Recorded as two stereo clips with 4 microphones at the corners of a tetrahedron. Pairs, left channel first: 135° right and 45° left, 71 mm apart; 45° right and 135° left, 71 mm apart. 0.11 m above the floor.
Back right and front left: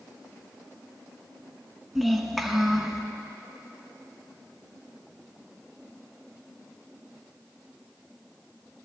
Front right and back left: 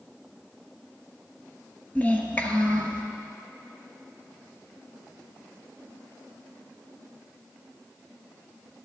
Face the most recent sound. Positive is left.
turn(degrees=-35)